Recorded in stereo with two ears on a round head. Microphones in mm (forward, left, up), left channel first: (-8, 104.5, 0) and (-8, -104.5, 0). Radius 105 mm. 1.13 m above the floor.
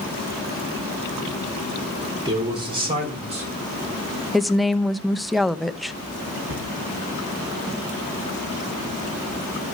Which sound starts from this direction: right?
A cupboard door, at 6.5 s.